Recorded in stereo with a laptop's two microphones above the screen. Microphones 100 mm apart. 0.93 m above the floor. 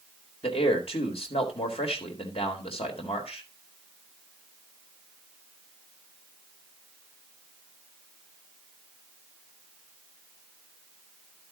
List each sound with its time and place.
0.4 s a man speaking: 75° left (ahead or behind), 4 m